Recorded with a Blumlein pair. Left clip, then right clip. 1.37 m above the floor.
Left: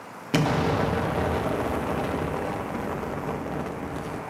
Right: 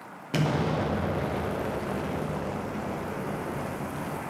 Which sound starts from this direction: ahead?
An explosion, at 0.3 s.